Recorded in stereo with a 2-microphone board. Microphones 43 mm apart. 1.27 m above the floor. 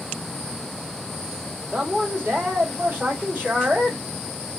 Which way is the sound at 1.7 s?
45° right (ahead or behind).